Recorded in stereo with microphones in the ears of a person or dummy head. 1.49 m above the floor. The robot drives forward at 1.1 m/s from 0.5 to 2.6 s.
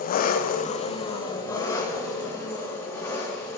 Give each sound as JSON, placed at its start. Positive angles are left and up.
{"t": 0.0, "sound": "an engine running", "side_deg": 45, "distance_m": 0.8}